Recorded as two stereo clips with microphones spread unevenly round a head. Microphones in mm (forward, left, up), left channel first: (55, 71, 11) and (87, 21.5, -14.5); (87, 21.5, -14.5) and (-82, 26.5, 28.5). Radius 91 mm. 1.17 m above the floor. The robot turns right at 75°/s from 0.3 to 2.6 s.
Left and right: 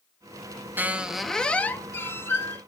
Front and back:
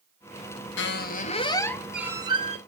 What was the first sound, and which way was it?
A squeak, 15° left.